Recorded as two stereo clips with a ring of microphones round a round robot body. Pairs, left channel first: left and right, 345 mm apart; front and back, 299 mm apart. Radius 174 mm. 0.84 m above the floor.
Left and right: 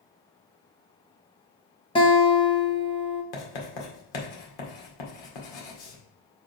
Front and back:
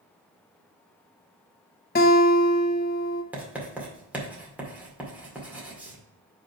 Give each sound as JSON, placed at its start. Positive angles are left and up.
{"t": 1.9, "sound": "a guitar", "azimuth_deg": 25, "distance_m": 0.9}
{"t": 3.3, "sound": "writing", "azimuth_deg": 95, "distance_m": 2.0}